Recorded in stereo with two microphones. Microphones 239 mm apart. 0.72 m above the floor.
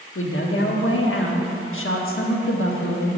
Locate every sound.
0.1 s a woman speaking: 60° left (ahead or behind), 1.0 m